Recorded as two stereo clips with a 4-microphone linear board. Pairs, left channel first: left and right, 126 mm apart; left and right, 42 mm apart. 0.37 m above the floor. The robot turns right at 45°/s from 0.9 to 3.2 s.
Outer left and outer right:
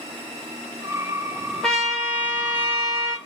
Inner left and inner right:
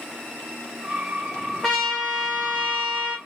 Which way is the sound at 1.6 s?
5° left (ahead or behind).